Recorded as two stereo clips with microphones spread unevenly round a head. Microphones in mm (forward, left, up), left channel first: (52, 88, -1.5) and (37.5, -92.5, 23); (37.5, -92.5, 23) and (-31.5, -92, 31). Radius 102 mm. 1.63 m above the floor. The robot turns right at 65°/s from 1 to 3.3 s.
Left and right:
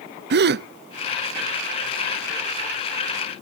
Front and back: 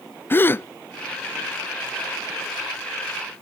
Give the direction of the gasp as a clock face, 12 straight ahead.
2 o'clock.